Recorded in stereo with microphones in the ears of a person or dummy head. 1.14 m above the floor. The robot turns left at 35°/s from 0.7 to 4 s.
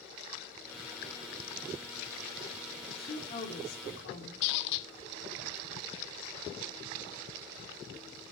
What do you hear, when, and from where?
2.9 s a woman speaking: 150° left, 2.5 m; by 4.3 s 110° left, 2.5 m
4.4 s a squeak: 60° left (ahead or behind), 0.5 m